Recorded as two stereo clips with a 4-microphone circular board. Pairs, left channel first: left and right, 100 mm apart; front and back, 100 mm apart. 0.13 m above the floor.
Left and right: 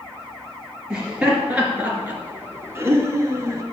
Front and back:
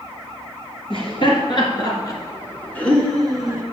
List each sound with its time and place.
0.9 s laughter: 10° right, 2.5 m; by 3.6 s 115° right, 1.7 m